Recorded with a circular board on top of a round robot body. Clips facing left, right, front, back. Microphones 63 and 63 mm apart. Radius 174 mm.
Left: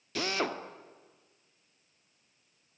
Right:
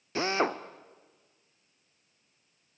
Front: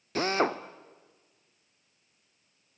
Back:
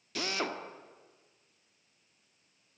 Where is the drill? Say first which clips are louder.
Right 4 dB, front 8 dB; 35° right, 1.3 m.